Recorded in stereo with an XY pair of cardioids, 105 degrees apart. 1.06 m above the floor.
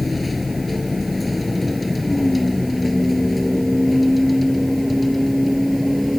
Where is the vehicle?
15° left; by 6.2 s straight ahead.